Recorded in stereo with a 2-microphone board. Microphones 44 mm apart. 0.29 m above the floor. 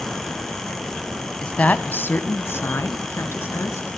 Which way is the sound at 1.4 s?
20° left (ahead or behind).